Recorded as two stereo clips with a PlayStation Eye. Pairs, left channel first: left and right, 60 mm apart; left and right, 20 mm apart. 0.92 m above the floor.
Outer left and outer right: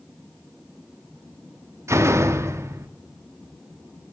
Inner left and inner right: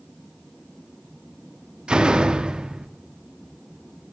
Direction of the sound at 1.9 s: 55° right (ahead or behind).